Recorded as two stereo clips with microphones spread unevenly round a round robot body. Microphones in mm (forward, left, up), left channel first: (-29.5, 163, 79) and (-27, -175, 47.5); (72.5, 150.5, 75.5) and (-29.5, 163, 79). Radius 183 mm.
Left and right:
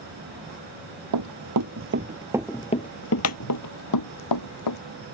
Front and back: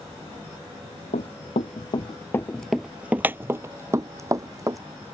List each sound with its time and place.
1.1 s running footsteps: 50° right; by 4.8 s 120° left